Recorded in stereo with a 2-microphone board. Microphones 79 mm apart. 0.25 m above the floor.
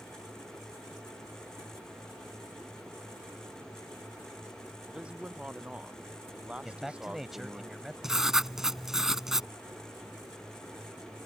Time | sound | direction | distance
4.9 | a man speaking | 15° right (ahead or behind) | ?
6.6 | a man speaking | 5° right (ahead or behind) | ?
8.0 | writing | 5° right (ahead or behind) | ?